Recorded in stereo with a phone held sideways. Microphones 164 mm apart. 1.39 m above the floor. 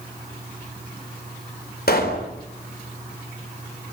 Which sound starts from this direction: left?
A pop, at 1.9 s.